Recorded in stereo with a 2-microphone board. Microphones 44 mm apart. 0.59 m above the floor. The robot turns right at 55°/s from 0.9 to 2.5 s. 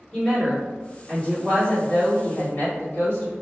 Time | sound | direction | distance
0.1 | a woman speaking | 20° left | 1.7 m